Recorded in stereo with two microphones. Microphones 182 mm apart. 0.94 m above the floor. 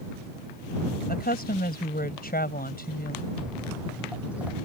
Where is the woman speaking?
55° left (ahead or behind).